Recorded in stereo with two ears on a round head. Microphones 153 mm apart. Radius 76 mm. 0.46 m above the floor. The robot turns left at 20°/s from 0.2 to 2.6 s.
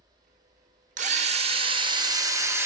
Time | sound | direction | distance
1.0 | a drill | 135° right | 0.6 m